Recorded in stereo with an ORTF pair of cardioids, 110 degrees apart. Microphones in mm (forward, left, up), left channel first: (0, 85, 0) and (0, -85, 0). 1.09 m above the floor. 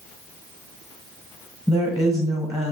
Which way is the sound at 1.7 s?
5° left.